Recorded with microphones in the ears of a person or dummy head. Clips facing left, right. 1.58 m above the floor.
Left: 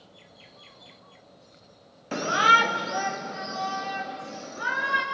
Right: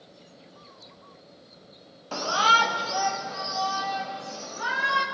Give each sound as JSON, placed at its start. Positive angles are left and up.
{"t": 2.1, "sound": "a shout", "side_deg": 30, "distance_m": 0.6}